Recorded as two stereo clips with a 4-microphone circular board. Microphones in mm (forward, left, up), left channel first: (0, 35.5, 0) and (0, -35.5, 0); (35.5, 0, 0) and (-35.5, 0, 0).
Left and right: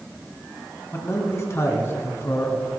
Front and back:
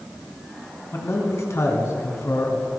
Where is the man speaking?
45° left, 2.5 m.